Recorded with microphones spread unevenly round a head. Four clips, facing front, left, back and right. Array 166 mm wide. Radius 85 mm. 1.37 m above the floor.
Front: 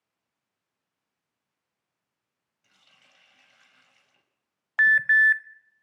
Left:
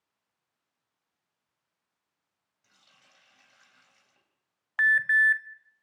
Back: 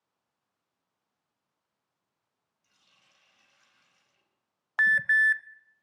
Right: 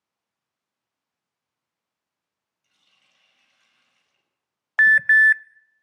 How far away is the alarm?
About 0.7 m.